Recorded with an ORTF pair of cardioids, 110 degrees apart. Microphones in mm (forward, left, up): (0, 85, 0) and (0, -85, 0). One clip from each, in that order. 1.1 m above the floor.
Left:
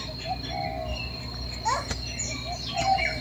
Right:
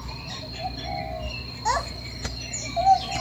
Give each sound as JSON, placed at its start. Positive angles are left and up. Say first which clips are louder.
{"t": 1.6, "sound": "a child speaking", "louder": "right 2 dB", "azimuth_deg": -25, "distance_m": 3.0}